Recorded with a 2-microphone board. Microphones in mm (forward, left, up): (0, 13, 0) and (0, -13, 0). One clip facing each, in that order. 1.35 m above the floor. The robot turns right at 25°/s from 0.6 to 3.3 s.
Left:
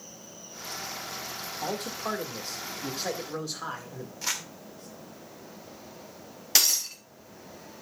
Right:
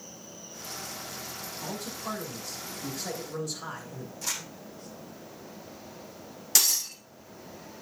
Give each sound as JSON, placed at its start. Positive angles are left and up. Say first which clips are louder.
{"t": 1.6, "sound": "a man speaking", "louder": "left 5 dB", "azimuth_deg": 105, "distance_m": 2.0}
{"t": 4.2, "sound": "crumpling", "louder": "left 3 dB", "side_deg": 30, "distance_m": 2.0}
{"t": 6.5, "sound": "breaking glass", "louder": "left 2 dB", "side_deg": 20, "distance_m": 3.0}